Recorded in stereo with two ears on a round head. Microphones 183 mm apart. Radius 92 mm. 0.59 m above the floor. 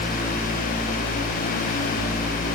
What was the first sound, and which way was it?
Only background noise.